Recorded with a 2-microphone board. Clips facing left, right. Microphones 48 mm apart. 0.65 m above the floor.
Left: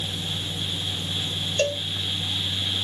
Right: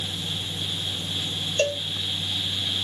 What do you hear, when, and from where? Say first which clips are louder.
1.6 s a cowbell: even; 10° right (ahead or behind)